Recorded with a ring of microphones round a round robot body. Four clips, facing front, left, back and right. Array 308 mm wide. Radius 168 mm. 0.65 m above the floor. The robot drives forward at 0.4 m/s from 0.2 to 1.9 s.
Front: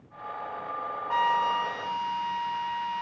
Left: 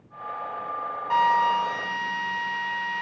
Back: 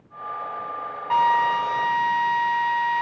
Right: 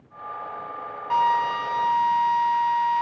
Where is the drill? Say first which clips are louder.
Even, back 6 dB; 175° right, 5.5 m.